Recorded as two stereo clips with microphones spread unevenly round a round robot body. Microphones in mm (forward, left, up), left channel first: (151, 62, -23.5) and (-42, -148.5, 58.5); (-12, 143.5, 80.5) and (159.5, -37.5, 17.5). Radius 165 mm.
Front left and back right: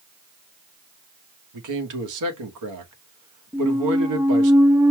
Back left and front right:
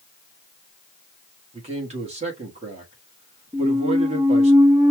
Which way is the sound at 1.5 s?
110° right.